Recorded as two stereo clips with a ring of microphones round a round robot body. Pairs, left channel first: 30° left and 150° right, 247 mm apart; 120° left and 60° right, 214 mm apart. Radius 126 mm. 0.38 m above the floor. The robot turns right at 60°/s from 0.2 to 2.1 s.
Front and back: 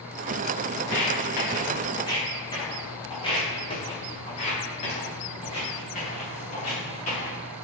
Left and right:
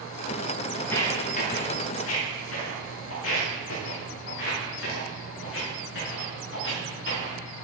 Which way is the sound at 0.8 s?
35° left.